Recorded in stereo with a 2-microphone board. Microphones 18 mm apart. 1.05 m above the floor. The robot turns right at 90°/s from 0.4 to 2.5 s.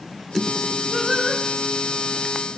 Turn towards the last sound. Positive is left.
turn(degrees=-10)